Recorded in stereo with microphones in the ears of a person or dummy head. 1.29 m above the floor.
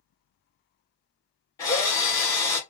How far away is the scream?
No scream in this recording.